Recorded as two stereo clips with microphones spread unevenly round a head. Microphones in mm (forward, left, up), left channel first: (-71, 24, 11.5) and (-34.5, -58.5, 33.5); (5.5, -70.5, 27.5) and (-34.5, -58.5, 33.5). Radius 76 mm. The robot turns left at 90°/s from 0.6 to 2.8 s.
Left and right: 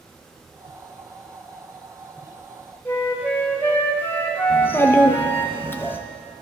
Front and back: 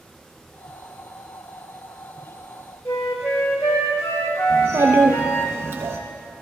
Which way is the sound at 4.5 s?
175° right.